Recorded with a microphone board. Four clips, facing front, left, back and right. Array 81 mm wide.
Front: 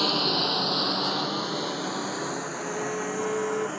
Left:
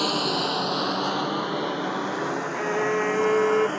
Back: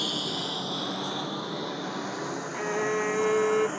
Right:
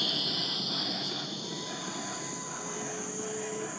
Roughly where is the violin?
Left.